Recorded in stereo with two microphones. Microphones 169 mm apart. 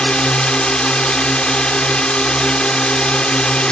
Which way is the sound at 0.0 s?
5° left (ahead or behind).